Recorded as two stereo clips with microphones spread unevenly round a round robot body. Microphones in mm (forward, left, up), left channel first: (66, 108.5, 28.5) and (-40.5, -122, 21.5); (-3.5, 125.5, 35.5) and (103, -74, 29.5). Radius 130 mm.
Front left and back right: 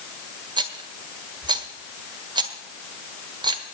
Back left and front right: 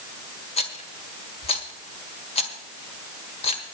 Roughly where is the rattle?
Behind.